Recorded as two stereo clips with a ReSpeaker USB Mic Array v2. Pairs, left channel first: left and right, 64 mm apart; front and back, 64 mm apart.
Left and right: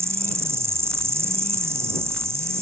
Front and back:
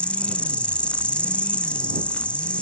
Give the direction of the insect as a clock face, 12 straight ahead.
2 o'clock.